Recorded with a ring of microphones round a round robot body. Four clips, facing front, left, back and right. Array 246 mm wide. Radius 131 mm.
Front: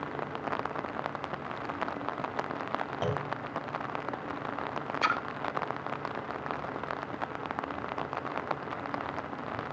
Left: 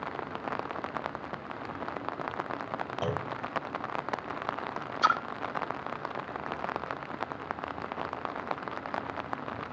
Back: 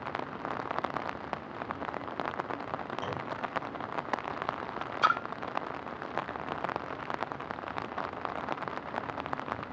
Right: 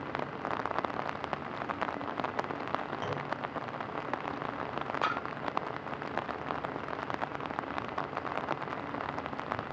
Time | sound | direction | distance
3.0 | a clunk | 45° left | 2 m
5.0 | a splash | 65° left | 0.8 m